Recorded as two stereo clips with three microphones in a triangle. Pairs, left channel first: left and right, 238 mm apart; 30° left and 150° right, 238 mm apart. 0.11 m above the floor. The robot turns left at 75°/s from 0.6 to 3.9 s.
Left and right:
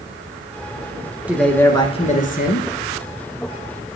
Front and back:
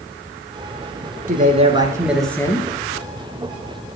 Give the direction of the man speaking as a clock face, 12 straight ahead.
6 o'clock.